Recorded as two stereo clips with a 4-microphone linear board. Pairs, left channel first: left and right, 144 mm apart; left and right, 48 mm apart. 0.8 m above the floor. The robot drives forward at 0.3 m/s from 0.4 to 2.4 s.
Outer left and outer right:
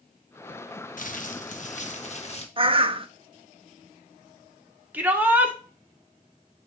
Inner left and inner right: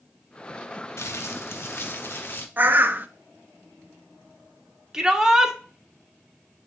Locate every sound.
1.0 s crumpling: 65° left (ahead or behind), 0.9 m; by 2.5 s 50° left (ahead or behind), 1.1 m
2.6 s a bird: 40° right (ahead or behind), 0.5 m
4.9 s a shout: 15° right (ahead or behind), 1.6 m